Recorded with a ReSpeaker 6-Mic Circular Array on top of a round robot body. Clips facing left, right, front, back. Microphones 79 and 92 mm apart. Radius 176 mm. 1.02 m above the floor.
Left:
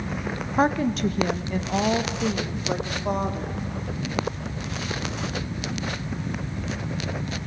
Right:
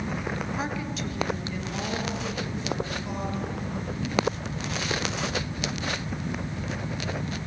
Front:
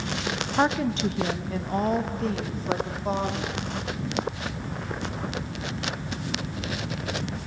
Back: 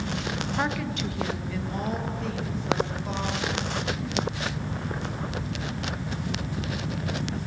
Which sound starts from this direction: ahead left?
A woman speaking, at 0.6 s.